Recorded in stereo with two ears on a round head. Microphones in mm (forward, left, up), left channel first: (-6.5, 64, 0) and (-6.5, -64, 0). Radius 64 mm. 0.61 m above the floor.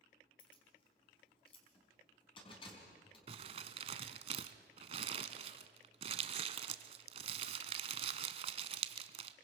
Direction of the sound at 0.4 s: 40° left (ahead or behind).